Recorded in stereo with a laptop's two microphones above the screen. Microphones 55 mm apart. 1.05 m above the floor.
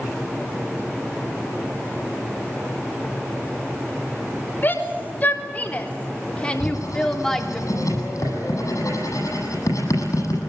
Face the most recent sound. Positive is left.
turn(degrees=85)